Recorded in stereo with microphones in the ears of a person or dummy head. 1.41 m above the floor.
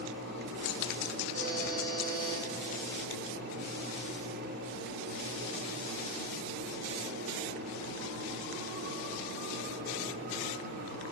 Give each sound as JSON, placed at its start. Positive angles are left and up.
{"t": 1.3, "sound": "a buzzer", "side_deg": -80, "distance_m": 3.0}